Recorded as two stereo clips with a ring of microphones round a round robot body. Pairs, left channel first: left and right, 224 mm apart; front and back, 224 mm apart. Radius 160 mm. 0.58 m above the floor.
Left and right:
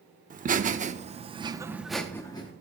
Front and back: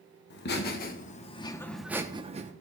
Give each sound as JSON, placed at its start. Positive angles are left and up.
{"t": 0.3, "sound": "laughter", "azimuth_deg": -40, "distance_m": 1.3}